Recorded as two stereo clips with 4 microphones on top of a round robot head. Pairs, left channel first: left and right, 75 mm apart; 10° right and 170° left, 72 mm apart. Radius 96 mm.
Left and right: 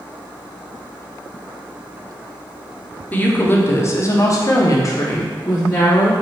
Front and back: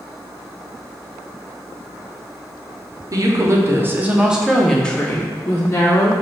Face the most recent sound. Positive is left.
turn(degrees=40)